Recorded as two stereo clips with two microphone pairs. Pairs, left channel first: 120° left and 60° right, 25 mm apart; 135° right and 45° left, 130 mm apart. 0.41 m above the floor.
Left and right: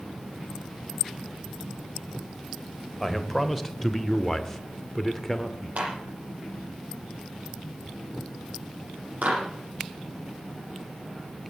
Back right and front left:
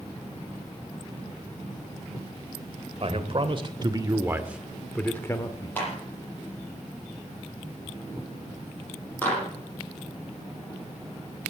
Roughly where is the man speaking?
Ahead left.